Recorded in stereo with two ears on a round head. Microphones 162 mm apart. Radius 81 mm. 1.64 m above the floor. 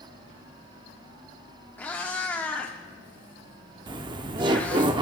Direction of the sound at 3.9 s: 25° right (ahead or behind).